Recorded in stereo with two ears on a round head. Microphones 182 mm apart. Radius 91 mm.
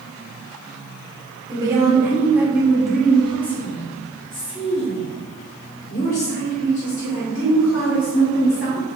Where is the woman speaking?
20° right (ahead or behind), 2 m; by 8.8 s 70° left (ahead or behind), 3 m.